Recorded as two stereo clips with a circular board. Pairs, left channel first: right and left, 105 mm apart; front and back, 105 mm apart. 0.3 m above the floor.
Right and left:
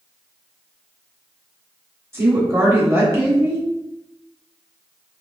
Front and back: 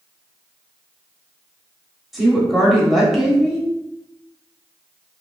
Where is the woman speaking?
95° left, 0.9 m.